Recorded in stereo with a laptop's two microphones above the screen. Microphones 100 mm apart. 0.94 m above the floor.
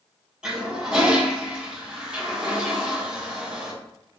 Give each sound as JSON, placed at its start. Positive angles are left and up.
{"t": 0.4, "sound": "a toilet flushing", "side_deg": -5, "distance_m": 0.7}